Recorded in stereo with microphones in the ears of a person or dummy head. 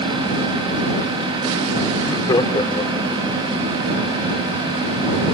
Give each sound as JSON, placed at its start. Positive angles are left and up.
{"t": 1.9, "sound": "laughter", "side_deg": 25}